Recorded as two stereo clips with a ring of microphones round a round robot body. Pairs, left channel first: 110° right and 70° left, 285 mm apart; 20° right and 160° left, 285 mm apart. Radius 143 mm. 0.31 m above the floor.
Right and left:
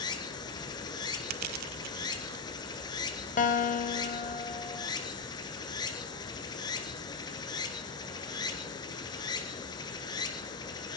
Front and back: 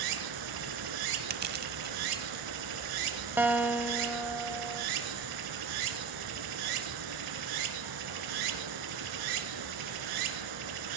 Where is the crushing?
100° left, 0.6 m.